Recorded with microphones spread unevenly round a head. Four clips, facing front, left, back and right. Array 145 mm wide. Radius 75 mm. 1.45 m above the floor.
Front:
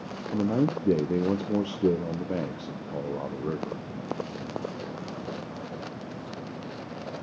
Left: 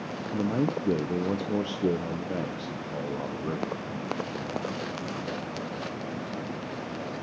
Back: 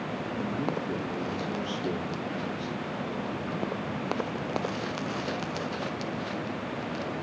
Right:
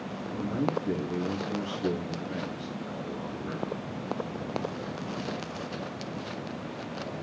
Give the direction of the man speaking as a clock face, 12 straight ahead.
11 o'clock.